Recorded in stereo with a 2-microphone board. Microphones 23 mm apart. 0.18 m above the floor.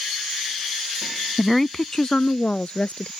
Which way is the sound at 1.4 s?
Centre (ahead or behind).